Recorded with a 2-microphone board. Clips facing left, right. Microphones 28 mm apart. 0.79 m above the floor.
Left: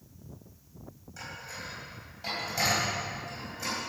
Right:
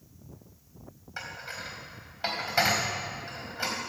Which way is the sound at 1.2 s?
45° right (ahead or behind).